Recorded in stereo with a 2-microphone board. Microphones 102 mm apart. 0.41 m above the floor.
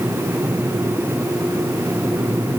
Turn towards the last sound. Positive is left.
No sound to turn to.